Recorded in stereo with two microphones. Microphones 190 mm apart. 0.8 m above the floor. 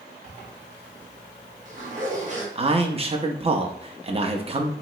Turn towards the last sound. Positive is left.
turn(degrees=-35)  # may be behind; listen again after turning